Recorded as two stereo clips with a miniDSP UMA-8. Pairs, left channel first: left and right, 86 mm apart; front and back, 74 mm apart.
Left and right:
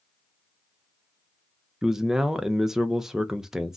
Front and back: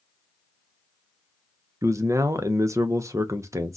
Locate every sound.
1.8 s a man speaking: 170° right, 0.5 m